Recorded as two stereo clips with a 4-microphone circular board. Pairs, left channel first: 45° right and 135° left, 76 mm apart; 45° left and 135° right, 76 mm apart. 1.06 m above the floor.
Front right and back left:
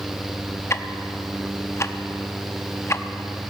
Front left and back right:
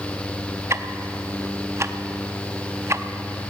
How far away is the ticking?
About 0.6 m.